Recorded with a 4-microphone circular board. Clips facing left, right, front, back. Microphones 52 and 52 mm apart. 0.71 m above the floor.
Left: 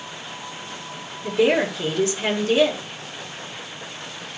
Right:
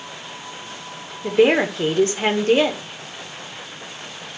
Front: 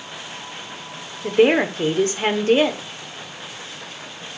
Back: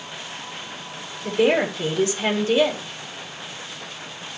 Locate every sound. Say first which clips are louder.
1.2 s a woman speaking: right 3 dB, front 3 dB; 45° right, 1.8 m